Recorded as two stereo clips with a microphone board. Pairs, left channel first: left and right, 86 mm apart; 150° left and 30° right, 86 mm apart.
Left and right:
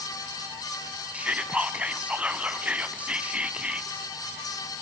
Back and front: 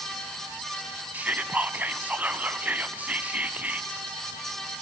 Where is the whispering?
50° right, 1.0 m.